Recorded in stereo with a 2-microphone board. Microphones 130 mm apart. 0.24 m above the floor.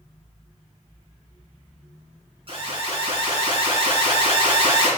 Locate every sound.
2.5 s an alarm: 45° right (ahead or behind), 3.5 m